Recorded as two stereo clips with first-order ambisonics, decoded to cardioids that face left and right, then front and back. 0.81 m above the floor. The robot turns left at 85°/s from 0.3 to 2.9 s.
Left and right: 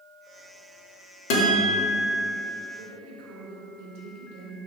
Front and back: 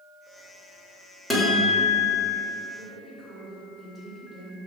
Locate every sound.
1.3 s a guitar: 90° left, 1.2 m; by 2.4 s straight ahead, 1.2 m
2.8 s a woman speaking: 85° right, 2.0 m; by 4.6 s 95° right, 2.0 m